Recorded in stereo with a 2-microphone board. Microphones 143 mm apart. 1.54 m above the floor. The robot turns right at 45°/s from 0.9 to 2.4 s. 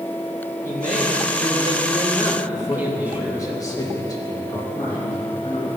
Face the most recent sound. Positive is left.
turn(degrees=30)  # may be behind; listen again after turning